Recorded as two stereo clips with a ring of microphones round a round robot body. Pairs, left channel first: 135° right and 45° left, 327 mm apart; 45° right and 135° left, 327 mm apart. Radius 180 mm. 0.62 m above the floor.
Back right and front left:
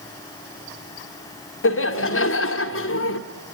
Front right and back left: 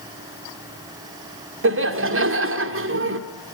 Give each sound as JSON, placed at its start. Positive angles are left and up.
{"t": 1.6, "sound": "laughter", "azimuth_deg": 180, "distance_m": 2.0}